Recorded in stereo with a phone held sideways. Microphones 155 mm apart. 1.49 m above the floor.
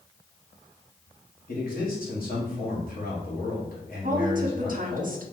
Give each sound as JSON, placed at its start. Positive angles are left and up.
{"t": 1.5, "sound": "a man speaking", "side_deg": 65, "distance_m": 1.4}
{"t": 4.0, "sound": "a woman speaking", "side_deg": -60, "distance_m": 0.6}